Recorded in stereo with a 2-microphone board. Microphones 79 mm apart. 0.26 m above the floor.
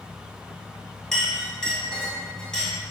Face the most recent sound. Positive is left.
turn(degrees=5)  # may be behind; listen again after turning